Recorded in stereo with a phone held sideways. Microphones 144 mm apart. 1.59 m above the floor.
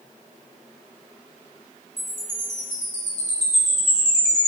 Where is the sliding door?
I don't hear a sliding door.